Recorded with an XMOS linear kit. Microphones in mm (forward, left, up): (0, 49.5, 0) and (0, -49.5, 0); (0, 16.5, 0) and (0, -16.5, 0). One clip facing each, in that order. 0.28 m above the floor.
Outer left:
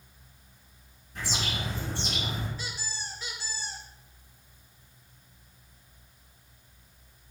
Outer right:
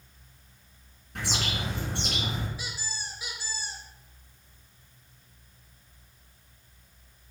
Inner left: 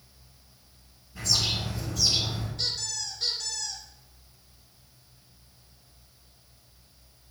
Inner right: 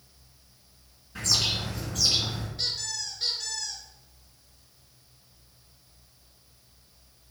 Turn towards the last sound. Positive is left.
turn(degrees=-10)  # may be behind; listen again after turning